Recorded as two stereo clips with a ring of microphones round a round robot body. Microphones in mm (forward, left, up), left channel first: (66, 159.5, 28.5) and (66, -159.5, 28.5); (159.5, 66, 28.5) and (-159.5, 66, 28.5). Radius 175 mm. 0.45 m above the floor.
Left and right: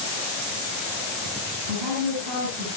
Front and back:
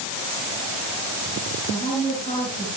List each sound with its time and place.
1.7 s a woman speaking: 75° right, 9.5 m